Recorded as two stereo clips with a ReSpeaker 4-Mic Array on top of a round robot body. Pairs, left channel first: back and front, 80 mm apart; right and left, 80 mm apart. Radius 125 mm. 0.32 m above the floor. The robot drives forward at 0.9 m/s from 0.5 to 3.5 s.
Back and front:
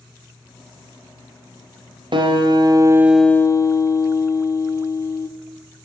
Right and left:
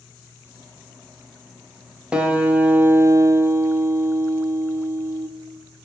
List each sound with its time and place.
2.1 s a guitar: 15° left, 1.1 m; by 5.3 s 140° left, 0.5 m